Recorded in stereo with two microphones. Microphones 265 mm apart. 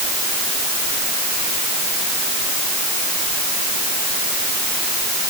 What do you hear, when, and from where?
Only background noise.